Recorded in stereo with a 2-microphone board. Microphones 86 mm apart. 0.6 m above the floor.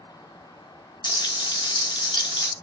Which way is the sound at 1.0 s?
65° left (ahead or behind).